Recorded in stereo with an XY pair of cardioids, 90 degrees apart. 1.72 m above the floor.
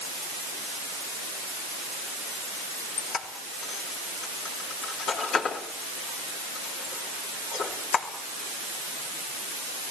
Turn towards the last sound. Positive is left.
turn(degrees=70)